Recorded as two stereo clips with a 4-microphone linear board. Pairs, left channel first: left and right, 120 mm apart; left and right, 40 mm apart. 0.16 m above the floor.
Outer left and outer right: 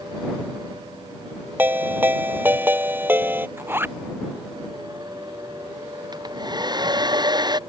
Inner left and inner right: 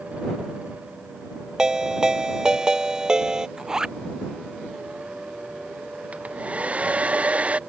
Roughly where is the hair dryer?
Right.